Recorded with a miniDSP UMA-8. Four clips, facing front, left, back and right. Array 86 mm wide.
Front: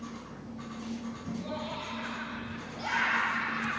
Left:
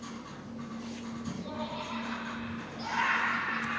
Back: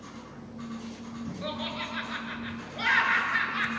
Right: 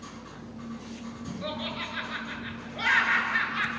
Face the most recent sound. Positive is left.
turn(degrees=-130)